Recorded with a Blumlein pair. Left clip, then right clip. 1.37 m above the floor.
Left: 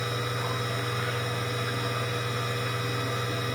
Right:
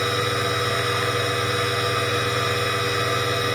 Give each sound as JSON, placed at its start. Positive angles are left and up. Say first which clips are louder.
{"t": 0.0, "sound": "a machine running", "louder": "right 9 dB", "azimuth_deg": -25}